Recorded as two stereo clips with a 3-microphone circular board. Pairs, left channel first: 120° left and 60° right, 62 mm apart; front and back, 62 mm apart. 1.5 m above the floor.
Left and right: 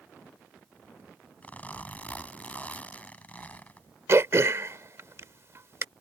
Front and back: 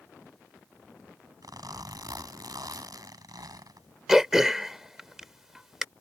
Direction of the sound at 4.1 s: 95° right.